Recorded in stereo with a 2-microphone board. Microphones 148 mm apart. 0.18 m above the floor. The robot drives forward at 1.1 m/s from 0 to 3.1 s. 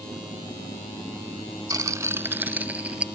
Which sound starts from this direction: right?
A rattle, at 1.7 s.